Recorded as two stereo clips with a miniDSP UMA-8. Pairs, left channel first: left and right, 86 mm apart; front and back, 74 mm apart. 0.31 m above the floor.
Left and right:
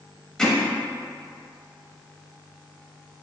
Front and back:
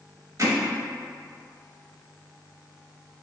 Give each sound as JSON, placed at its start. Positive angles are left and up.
{"t": 0.4, "sound": "hammering", "azimuth_deg": 170, "distance_m": 0.8}